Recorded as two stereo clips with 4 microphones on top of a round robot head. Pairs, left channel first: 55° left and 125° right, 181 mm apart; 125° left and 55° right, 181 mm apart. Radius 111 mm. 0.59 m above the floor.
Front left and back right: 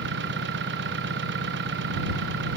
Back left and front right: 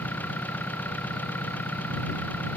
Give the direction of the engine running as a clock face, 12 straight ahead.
5 o'clock.